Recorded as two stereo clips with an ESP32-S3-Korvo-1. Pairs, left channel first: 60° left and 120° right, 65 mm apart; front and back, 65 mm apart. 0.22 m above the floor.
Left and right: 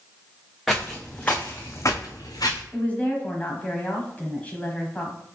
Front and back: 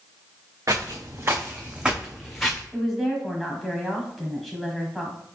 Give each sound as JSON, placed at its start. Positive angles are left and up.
{"t": 0.7, "sound": "footsteps", "azimuth_deg": 145, "distance_m": 0.9}
{"t": 2.7, "sound": "a woman speaking", "azimuth_deg": 85, "distance_m": 1.0}